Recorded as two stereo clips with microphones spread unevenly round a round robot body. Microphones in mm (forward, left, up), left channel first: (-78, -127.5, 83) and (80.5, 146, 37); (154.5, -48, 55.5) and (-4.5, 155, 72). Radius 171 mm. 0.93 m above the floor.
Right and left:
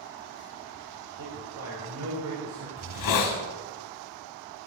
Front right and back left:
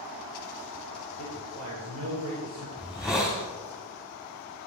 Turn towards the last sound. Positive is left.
turn(degrees=-145)